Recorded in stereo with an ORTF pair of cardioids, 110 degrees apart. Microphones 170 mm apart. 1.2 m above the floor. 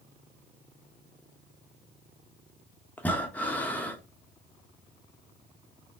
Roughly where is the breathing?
Ahead.